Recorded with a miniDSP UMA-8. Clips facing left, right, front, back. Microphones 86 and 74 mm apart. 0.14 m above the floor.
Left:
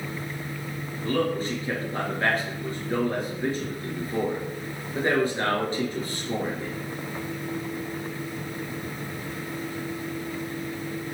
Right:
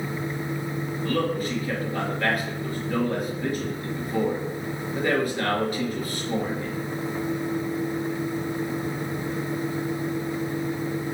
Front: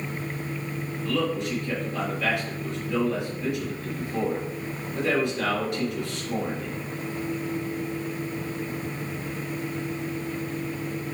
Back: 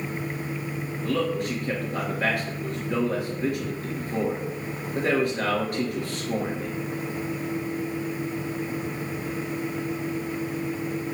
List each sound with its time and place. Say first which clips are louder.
1.0 s a man speaking: left 1 dB, back 1 dB; 145° left, 2.5 m